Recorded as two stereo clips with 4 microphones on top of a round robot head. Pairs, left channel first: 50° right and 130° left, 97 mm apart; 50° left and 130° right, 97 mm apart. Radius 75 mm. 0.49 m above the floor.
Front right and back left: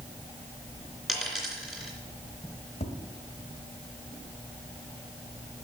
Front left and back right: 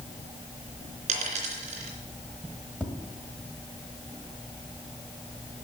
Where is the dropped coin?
145° right, 3 m.